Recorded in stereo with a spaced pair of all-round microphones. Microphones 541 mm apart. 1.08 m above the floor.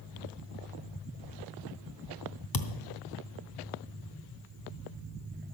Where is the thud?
40° left (ahead or behind), 0.9 m.